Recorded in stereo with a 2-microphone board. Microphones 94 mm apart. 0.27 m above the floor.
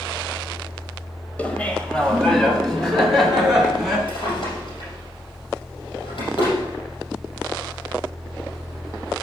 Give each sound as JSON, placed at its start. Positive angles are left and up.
{"t": 1.4, "sound": "laughter", "side_deg": 15, "distance_m": 1.1}
{"t": 4.1, "sound": "a drawer", "side_deg": 60, "distance_m": 5.0}